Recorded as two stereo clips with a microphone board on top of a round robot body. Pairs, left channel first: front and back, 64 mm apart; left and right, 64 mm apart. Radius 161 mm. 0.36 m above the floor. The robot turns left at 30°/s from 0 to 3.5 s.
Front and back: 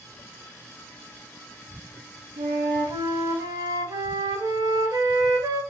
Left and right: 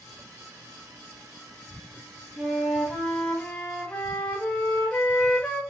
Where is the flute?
160° right, 0.6 m; by 5.6 s 165° left, 0.6 m.